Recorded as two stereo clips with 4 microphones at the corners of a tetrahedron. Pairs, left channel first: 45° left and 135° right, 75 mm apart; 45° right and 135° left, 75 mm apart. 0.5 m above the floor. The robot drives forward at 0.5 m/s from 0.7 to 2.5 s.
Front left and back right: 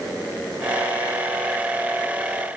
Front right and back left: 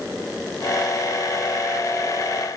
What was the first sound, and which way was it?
Only background noise.